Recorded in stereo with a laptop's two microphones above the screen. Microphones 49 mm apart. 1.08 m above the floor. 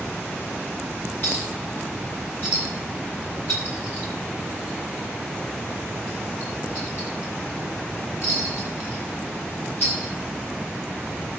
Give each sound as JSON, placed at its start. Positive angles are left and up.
{"t": 1.2, "sound": "a clink", "side_deg": 45, "distance_m": 8.5}